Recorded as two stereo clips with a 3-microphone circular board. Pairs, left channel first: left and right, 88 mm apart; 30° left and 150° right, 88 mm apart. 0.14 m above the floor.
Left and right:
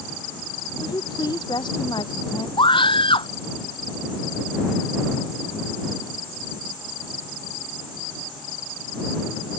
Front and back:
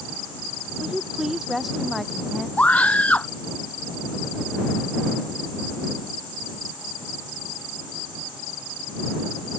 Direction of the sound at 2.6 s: 105° left.